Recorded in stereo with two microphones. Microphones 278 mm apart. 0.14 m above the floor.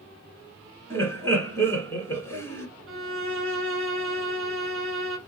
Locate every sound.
0.9 s laughter: 10° left (ahead or behind), 1.3 m
2.9 s a violin: 50° right (ahead or behind), 0.8 m